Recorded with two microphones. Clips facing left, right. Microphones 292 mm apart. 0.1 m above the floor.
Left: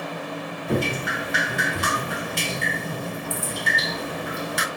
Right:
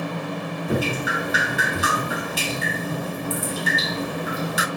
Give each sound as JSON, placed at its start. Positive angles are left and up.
{"t": 0.7, "sound": "dripping", "side_deg": -5, "distance_m": 0.6}